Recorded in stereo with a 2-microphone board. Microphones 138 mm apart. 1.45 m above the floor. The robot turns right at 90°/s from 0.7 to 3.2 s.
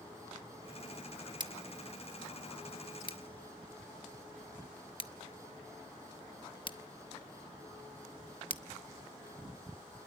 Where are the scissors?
35° right (ahead or behind), 1.0 m; by 8.6 s 40° left (ahead or behind), 1.0 m.